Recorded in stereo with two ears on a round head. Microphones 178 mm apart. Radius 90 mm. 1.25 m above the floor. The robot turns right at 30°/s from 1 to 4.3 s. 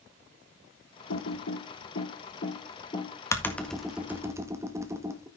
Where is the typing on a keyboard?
80° left, 1.6 m; by 5.3 s 15° right (ahead or behind), 1.6 m.